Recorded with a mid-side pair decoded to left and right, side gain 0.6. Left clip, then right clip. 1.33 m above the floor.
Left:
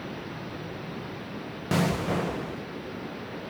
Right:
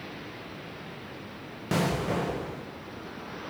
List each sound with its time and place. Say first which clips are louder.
1.7 s an explosion: left 1 dB; 10° left, 1.0 m